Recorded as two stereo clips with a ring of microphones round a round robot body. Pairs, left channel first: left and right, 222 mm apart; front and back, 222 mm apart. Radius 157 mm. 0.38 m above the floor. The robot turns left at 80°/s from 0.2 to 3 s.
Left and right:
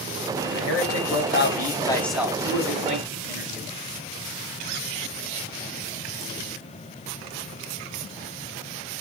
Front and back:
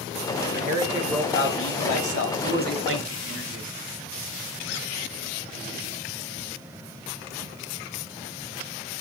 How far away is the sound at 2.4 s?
About 3.5 m.